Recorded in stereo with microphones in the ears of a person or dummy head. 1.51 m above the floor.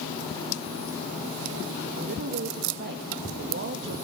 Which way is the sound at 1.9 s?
65° right (ahead or behind).